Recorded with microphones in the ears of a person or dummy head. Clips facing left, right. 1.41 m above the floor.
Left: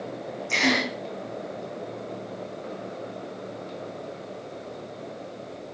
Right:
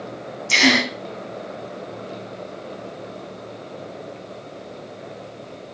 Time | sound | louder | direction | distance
0.5 | a gasp | right 6 dB | 55° right (ahead or behind) | 3.5 m